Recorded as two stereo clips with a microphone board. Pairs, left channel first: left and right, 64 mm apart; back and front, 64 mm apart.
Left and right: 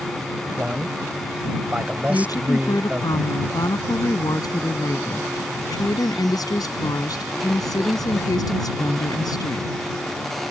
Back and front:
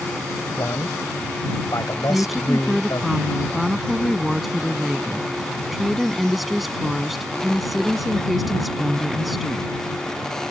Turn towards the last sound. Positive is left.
turn(degrees=90)